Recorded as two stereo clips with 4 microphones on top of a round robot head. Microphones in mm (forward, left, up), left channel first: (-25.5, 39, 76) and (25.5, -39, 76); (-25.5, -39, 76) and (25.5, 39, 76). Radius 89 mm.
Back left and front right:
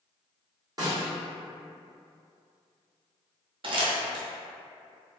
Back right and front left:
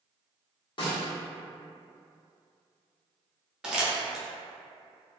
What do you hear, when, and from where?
0.8 s a snare drum: 100° right, 1.1 m
3.6 s crumpling: 25° right, 0.5 m